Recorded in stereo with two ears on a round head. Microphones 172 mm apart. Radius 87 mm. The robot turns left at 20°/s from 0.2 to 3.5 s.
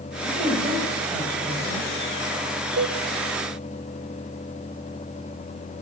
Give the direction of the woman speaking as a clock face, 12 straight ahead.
5 o'clock.